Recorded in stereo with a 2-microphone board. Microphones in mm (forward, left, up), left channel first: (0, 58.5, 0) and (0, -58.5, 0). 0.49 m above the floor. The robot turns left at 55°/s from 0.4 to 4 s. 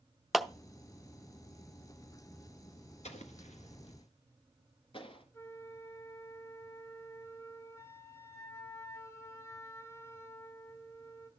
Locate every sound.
0.3 s a clap: centre (ahead or behind), 0.6 m
3.0 s an explosion: 75° left (ahead or behind), 1.4 m; by 5.2 s 50° left (ahead or behind), 1.4 m
5.3 s a flute: 25° left (ahead or behind), 1.1 m